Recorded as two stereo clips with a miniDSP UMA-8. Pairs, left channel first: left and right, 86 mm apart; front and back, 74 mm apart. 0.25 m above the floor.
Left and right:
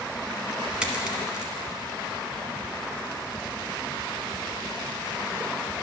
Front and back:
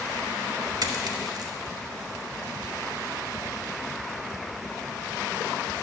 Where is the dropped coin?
170° right, 0.8 m.